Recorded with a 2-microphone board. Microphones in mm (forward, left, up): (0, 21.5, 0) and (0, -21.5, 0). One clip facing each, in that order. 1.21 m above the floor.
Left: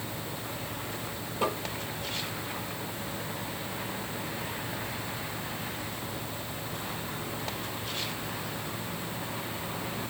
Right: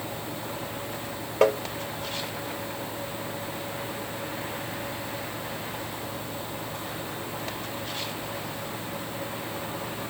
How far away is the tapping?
About 2.5 m.